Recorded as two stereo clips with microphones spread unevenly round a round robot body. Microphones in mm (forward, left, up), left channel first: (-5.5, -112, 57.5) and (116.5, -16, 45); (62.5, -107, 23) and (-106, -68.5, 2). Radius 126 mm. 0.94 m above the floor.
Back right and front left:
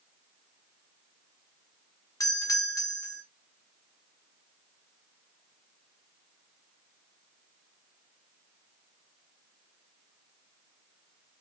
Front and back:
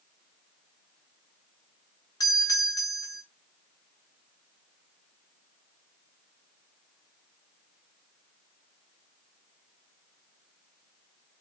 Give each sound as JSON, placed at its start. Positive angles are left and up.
{"t": 2.2, "sound": "a doorbell", "azimuth_deg": -80, "distance_m": 0.9}